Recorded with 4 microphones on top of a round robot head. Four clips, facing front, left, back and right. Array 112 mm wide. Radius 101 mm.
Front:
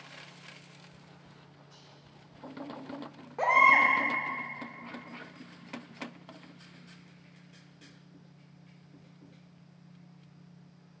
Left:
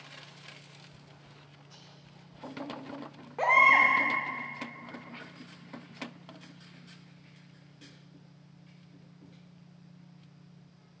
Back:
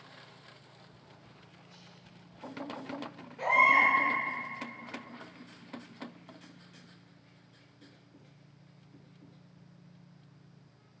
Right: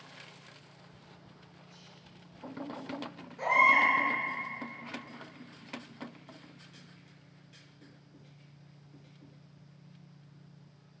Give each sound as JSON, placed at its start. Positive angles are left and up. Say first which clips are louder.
{"t": 1.7, "sound": "whispering", "louder": "even, even", "azimuth_deg": 105, "distance_m": 1.6}
{"t": 3.4, "sound": "a baby crying", "louder": "left 2 dB, front 2 dB", "azimuth_deg": 50, "distance_m": 0.6}